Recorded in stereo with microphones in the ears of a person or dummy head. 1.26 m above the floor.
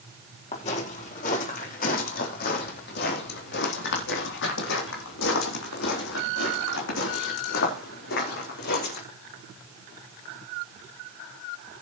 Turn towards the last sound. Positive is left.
turn(degrees=60)  # may be behind; listen again after turning